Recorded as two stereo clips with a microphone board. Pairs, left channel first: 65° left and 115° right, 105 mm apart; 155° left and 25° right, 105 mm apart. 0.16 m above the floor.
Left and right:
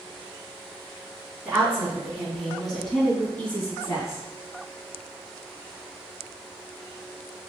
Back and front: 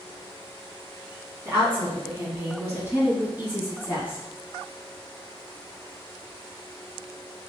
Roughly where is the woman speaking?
Ahead right.